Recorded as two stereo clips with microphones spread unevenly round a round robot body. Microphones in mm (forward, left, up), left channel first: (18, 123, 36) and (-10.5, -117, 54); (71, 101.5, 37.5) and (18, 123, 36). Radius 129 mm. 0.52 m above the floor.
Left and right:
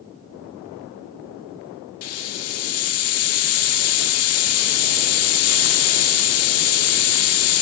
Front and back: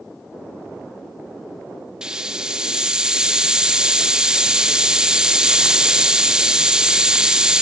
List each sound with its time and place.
2.0 s a hiss: 80° left, 0.6 m